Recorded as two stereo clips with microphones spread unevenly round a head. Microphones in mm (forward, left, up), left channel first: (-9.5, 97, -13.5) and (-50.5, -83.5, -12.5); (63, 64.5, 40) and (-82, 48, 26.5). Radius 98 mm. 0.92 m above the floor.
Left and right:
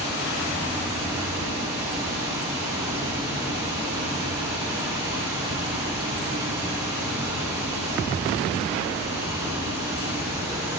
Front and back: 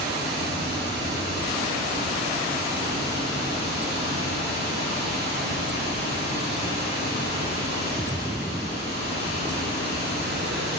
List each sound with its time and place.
0.0 s running water: 175° right, 5 m